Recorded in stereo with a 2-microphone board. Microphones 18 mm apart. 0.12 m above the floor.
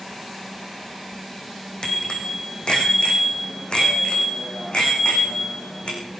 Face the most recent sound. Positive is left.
turn(degrees=60)  # may be behind; listen again after turning